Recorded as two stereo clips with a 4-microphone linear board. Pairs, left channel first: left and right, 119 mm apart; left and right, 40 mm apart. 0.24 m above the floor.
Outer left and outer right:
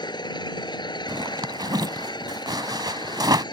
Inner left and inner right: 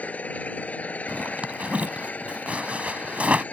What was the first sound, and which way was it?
An engine running, 40° left (ahead or behind).